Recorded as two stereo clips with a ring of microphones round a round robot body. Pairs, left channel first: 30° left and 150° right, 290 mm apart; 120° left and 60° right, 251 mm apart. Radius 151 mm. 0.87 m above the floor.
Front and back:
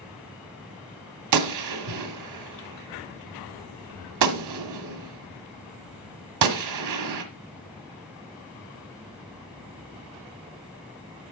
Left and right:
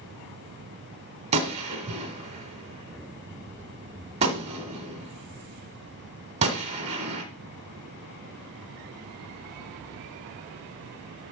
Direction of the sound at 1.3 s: 130° right.